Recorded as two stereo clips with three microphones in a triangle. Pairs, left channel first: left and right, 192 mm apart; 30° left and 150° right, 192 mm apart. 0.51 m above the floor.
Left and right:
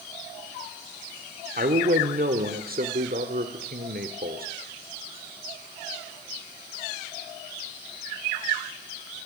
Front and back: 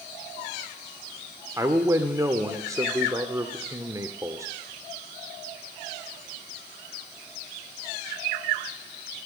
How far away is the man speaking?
About 1.3 m.